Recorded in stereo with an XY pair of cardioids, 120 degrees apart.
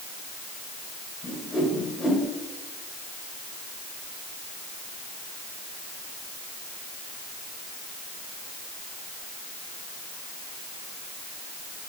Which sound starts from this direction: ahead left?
A whoosh, at 1.2 s.